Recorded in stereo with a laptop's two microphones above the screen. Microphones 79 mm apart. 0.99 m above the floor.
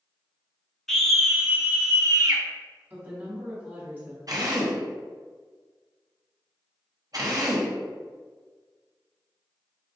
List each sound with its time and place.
0.9 s a scream: 5° left (ahead or behind), 0.8 m; by 2.4 s 50° right (ahead or behind), 0.8 m
2.9 s a woman speaking: 20° right (ahead or behind), 1.3 m
4.3 s a drill: 50° right (ahead or behind), 0.6 m